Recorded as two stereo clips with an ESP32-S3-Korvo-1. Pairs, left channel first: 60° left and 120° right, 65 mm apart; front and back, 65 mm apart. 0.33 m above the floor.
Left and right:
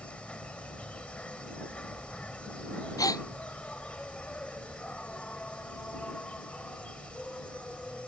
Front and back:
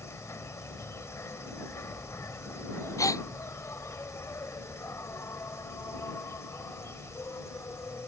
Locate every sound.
0.0 s an insect: straight ahead
3.0 s a gasp: 35° left